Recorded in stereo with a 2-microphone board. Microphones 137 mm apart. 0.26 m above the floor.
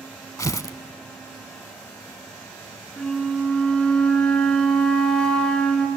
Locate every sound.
0.4 s tearing paper: 25° left (ahead or behind), 0.6 m
3.0 s a flute: 5° left (ahead or behind), 1.7 m